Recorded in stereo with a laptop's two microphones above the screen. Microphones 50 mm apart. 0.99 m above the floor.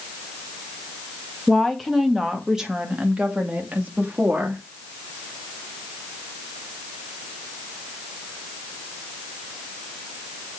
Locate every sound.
1.5 s a woman speaking: 5° left (ahead or behind), 1.7 m; by 4.6 s 35° right (ahead or behind), 2.5 m